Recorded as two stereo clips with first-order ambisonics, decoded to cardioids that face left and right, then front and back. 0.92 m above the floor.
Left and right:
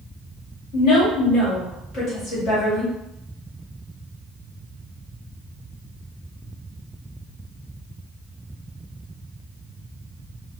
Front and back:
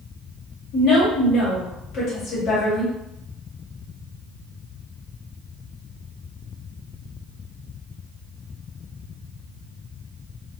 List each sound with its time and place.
0.7 s a woman speaking: 45° left, 1.8 m